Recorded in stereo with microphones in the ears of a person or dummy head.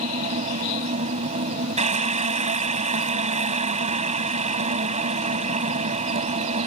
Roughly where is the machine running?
Right.